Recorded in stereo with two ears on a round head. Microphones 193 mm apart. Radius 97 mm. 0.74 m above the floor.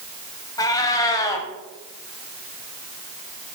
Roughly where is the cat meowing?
Centre.